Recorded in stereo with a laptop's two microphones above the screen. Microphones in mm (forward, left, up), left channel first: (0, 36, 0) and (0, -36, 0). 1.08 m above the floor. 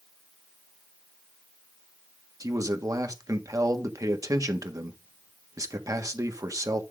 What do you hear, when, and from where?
2.4 s a man speaking: 50° right (ahead or behind), 1.5 m